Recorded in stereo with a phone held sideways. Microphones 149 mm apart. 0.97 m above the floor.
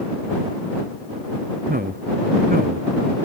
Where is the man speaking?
75° right (ahead or behind); by 3.2 s 80° right.